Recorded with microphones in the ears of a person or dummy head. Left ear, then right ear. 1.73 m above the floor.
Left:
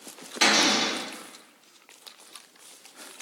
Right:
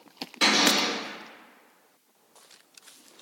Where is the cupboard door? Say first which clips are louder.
Left 1 dB; 20° left (ahead or behind), 1.2 m.